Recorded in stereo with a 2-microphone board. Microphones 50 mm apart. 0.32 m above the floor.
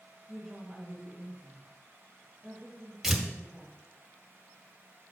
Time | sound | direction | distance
0.3 | a woman speaking | 5° left (ahead or behind) | 1.9 m
3.0 | tearing paper | 10° right (ahead or behind) | 1.0 m